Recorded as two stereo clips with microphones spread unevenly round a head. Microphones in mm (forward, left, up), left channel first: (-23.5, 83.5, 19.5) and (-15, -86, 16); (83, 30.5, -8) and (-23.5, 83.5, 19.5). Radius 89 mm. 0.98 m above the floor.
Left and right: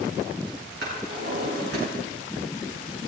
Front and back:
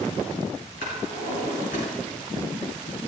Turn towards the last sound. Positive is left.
turn(degrees=-50)